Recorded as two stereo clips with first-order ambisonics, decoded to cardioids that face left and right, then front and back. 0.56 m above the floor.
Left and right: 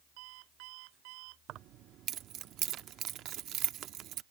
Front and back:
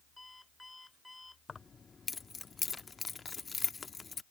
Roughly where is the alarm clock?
Right.